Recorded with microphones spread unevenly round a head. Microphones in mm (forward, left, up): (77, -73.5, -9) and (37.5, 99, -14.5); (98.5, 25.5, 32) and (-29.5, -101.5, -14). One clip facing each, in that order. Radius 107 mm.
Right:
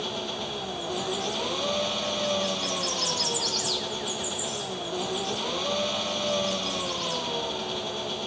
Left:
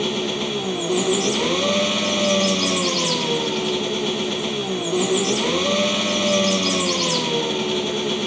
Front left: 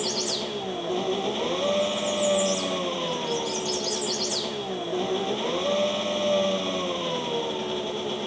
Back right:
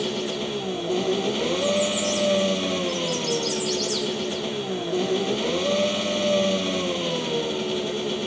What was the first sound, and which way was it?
An engine running, 150° left.